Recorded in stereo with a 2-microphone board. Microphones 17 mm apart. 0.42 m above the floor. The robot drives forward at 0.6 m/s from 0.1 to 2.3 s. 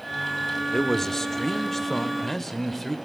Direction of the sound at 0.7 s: 25° left (ahead or behind).